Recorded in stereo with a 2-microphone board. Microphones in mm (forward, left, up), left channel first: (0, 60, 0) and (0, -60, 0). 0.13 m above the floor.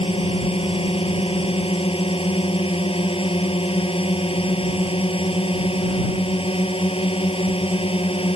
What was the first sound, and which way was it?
A drone, 50° left (ahead or behind).